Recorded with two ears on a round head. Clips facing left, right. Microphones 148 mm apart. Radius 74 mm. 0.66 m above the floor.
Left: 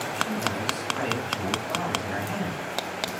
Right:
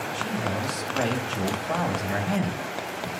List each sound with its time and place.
0.1 s a man speaking: 75° right (ahead or behind), 3 m